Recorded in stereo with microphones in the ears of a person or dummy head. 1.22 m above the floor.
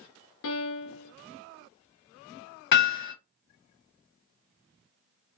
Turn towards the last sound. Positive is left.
turn(degrees=50)  # may be behind; listen again after turning